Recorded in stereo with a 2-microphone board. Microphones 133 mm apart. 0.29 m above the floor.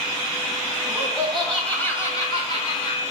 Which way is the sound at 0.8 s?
10° right (ahead or behind).